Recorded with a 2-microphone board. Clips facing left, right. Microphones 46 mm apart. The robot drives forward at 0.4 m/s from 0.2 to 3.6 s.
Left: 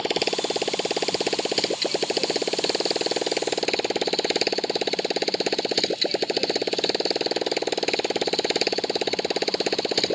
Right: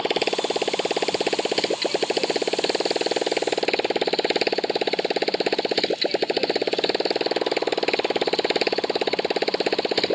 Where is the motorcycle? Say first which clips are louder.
Right 2 dB; 10° right (ahead or behind); by 10.2 s 15° right (ahead or behind).